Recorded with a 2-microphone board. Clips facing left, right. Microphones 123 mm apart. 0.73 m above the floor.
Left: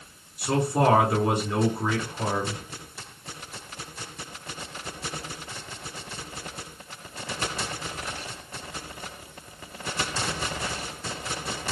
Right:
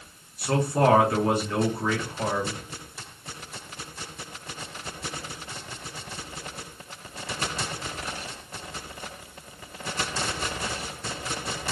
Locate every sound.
0.4 s a man speaking: 10° left (ahead or behind), 1.8 m